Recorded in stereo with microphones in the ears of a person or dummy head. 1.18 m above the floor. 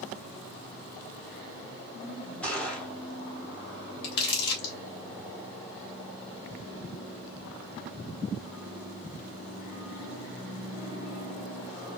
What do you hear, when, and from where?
2.4 s a gunshot: 10° left (ahead or behind), 1.2 m
4.0 s crumpling: 60° left (ahead or behind), 1.5 m